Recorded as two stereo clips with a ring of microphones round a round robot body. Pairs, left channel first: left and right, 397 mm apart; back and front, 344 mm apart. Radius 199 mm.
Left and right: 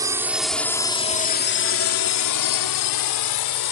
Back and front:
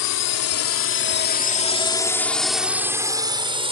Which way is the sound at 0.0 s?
170° right.